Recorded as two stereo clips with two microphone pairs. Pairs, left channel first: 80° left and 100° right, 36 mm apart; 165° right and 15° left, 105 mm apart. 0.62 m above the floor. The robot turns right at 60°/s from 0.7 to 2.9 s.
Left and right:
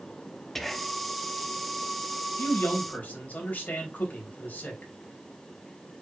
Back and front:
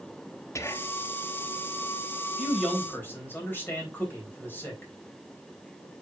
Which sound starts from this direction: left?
A man speaking, at 2.4 s.